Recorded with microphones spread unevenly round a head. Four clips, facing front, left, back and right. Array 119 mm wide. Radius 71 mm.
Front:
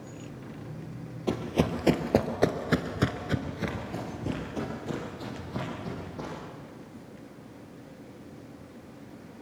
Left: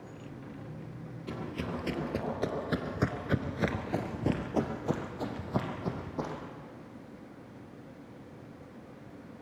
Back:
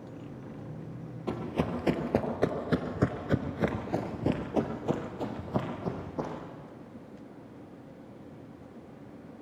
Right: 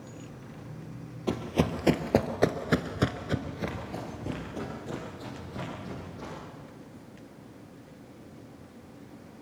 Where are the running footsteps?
50° right, 2.5 m; by 6.3 s 125° left, 4.5 m.